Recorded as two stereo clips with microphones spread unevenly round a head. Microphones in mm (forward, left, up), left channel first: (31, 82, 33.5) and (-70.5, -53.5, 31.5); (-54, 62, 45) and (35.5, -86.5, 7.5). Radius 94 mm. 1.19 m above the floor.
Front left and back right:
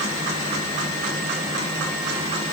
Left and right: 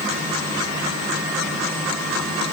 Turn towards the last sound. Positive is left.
No sound to turn to.